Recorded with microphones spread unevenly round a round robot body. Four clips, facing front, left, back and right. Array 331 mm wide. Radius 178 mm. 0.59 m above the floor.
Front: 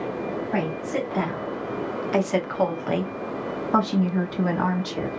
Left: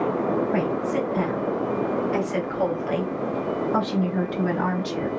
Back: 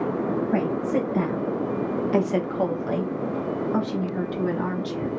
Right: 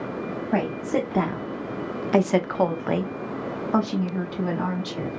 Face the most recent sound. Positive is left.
turn(degrees=15)